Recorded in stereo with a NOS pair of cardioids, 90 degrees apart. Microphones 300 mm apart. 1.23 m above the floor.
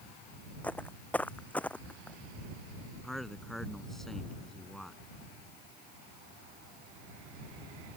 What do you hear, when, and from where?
0.6 s footsteps: 5° left
3.0 s a man speaking: straight ahead